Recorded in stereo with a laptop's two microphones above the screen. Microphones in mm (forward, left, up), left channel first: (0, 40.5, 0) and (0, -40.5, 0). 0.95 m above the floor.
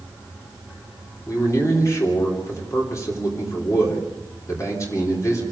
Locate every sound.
1.3 s a man speaking: 40° left (ahead or behind), 3.5 m